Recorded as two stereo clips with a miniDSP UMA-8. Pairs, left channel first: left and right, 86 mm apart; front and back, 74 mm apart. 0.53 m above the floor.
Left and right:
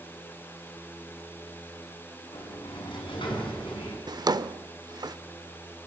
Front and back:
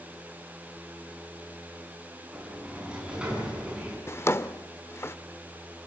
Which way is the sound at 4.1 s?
55° right.